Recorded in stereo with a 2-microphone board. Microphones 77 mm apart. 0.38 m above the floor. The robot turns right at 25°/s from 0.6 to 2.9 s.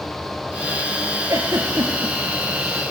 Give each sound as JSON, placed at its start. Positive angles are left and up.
{"t": 1.3, "sound": "a giggle", "side_deg": -45, "distance_m": 3.5}